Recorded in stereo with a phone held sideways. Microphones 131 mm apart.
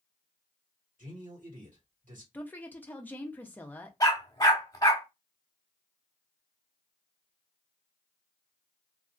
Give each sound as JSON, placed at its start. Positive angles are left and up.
{"t": 1.0, "sound": "a man speaking", "side_deg": -75, "distance_m": 2.0}
{"t": 2.3, "sound": "a woman speaking", "side_deg": 15, "distance_m": 0.7}
{"t": 4.0, "sound": "a dog barking", "side_deg": 30, "distance_m": 0.9}